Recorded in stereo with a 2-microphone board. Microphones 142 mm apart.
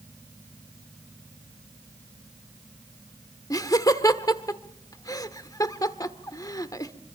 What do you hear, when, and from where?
3.5 s laughter: 25° left (ahead or behind), 1.3 m